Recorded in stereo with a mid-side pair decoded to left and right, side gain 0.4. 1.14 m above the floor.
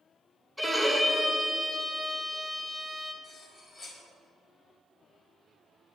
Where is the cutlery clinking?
50° left, 3.5 m.